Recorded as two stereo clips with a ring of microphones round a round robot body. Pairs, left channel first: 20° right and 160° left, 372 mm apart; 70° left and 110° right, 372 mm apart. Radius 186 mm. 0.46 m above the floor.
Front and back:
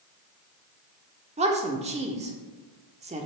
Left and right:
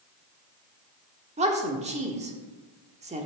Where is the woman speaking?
155° right, 1.3 m.